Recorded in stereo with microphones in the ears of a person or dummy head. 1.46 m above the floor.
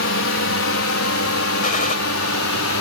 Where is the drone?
60° left (ahead or behind); by 2.8 s 70° left (ahead or behind).